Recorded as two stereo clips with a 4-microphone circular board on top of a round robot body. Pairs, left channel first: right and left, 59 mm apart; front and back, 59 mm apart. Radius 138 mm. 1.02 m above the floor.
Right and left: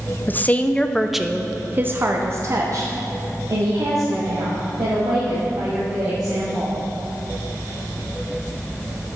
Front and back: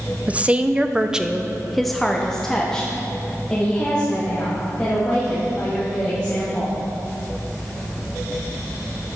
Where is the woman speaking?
125° right, 0.9 m; by 6.7 s 70° left, 3.5 m.